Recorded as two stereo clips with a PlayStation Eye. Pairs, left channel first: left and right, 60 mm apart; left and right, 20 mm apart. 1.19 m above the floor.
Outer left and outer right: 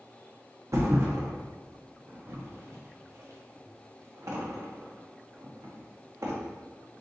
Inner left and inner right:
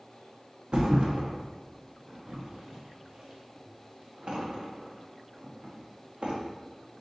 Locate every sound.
0.7 s a thud: 55° right (ahead or behind), 0.9 m